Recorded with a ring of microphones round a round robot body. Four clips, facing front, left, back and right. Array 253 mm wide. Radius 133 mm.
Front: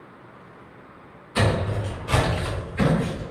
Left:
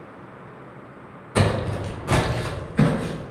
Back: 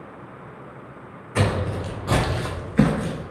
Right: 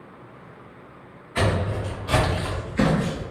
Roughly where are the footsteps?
Left.